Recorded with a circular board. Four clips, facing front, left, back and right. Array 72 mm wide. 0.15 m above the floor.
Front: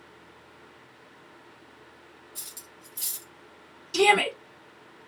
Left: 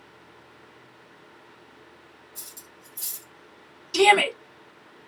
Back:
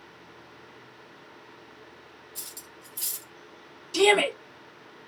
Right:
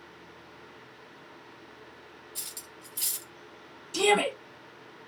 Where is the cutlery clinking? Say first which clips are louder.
Right 1 dB, back 2 dB; 100° right, 1.5 m.